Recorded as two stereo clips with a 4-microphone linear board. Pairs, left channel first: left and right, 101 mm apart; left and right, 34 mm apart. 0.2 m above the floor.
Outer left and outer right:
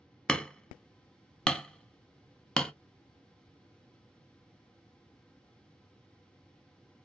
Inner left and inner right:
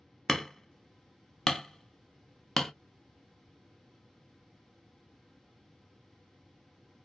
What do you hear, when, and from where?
0.3 s hammering: 10° left (ahead or behind), 0.5 m